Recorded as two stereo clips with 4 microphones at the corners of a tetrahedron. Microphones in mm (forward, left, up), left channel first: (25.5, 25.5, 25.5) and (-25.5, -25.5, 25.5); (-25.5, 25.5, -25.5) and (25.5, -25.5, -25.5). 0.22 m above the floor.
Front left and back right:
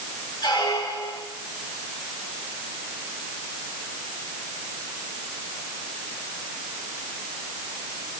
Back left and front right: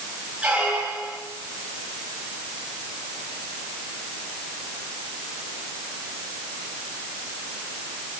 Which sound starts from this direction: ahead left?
A squeak, at 0.4 s.